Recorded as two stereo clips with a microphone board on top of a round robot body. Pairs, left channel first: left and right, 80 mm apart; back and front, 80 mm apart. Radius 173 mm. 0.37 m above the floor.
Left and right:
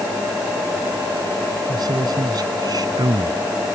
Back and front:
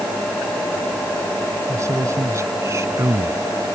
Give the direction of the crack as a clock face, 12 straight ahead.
I don't hear a crack.